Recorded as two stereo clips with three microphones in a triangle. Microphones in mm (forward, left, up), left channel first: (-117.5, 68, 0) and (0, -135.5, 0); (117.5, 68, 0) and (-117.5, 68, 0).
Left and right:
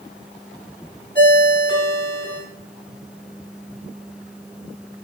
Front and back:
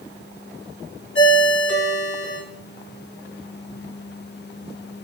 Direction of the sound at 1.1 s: 15° right.